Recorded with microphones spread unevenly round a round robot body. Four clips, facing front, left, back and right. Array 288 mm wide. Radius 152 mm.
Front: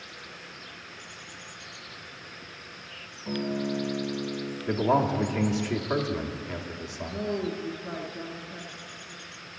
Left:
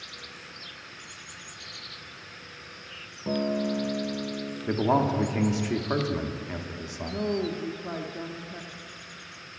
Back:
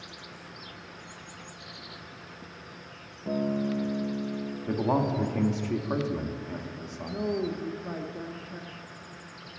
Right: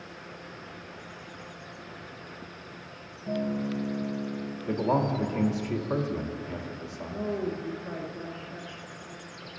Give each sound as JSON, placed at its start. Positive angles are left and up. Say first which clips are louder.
{"t": 3.3, "sound": "a guitar", "louder": "left 3 dB, back 1 dB", "azimuth_deg": 95, "distance_m": 0.9}
{"t": 4.7, "sound": "a man speaking", "louder": "left 2 dB, front 3 dB", "azimuth_deg": 65, "distance_m": 1.1}
{"t": 7.1, "sound": "a woman speaking", "louder": "left 2 dB, back 1 dB", "azimuth_deg": 115, "distance_m": 0.7}